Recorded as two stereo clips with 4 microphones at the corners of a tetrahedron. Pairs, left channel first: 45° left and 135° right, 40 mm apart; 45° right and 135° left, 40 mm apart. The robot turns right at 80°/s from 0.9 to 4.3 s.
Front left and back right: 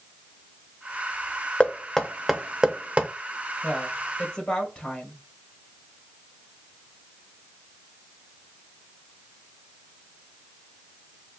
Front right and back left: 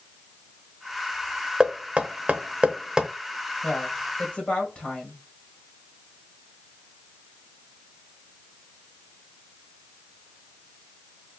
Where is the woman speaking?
70° right, 1.8 m; by 5.2 s 15° right, 1.8 m.